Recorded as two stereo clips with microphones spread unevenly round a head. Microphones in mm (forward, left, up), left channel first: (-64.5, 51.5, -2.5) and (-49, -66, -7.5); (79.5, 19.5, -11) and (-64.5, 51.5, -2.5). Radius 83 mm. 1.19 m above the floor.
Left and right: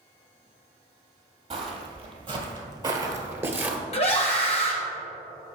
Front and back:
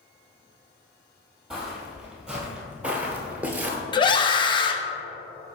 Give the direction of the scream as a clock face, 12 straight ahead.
11 o'clock.